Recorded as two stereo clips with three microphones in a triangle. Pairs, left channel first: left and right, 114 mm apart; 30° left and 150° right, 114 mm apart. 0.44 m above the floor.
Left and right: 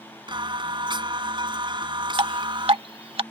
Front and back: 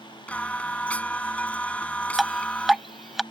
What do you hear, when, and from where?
0.3 s singing: 50° right
2.2 s dripping: 60° right